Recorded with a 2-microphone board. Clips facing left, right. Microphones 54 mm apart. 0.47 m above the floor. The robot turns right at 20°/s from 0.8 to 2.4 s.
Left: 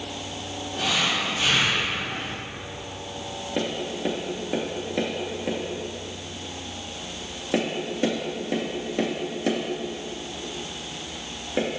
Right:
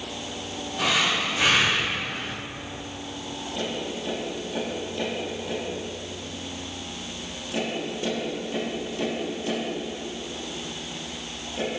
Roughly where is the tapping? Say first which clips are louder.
Left 4 dB; left.